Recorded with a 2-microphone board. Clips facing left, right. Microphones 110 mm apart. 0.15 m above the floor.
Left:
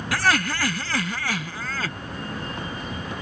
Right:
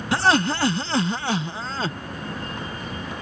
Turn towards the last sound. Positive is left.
turn(degrees=-30)  # may be behind; listen again after turning